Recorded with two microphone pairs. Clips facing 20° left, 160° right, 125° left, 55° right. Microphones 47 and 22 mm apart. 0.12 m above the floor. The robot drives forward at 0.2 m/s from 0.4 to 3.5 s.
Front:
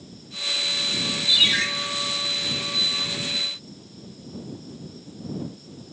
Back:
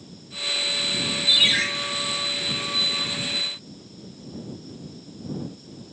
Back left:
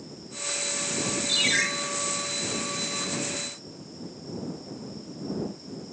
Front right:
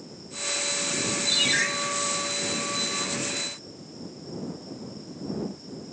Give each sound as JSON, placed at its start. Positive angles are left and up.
{"t": 1.3, "sound": "a ringtone", "azimuth_deg": 130, "distance_m": 1.5}